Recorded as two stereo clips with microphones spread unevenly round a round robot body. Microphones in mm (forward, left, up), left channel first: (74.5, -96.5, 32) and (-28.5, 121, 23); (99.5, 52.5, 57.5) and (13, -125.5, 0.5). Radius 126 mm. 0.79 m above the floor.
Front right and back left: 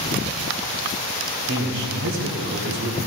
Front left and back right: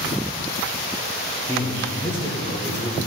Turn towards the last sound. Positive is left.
turn(degrees=150)